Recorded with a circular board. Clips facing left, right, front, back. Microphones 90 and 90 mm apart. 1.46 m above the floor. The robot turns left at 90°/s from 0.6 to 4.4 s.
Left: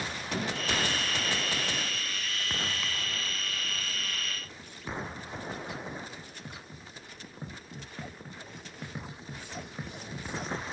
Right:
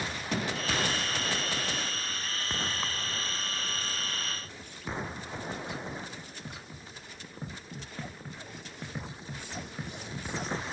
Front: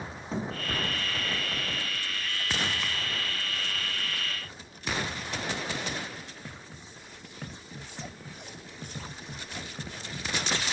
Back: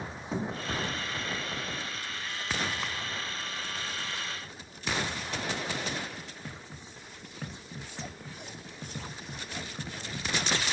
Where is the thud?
95° right, 1.1 m.